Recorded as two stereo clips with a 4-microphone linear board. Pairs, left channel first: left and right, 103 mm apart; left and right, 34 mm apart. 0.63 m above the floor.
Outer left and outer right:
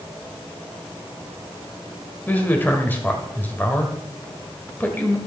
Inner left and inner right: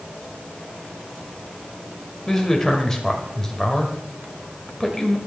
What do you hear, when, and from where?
2.3 s a man speaking: 20° left (ahead or behind), 2 m